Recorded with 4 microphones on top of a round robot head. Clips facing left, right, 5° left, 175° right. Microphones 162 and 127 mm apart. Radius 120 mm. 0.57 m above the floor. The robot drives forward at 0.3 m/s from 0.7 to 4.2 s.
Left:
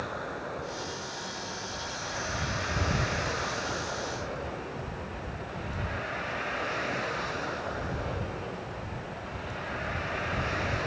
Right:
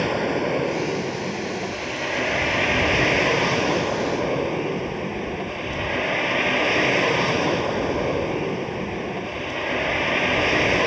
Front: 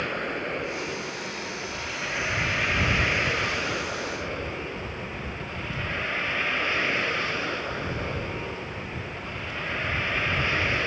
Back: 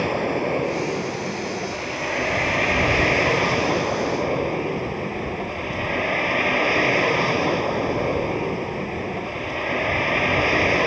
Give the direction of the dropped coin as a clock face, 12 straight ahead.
No dropped coin in this recording.